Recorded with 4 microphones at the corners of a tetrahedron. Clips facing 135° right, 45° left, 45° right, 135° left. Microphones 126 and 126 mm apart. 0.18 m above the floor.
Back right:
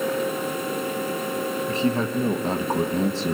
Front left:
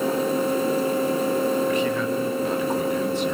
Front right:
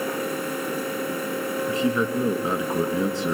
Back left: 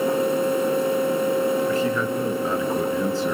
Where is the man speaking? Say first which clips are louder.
Front left 1 dB, back left 1 dB; 100° right, 1.3 m.